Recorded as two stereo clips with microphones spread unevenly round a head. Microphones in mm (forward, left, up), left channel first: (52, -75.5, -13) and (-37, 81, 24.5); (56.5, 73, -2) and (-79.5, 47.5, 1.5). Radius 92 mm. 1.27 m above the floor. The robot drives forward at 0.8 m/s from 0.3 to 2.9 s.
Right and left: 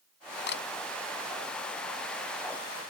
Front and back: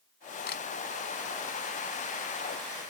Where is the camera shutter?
30° right.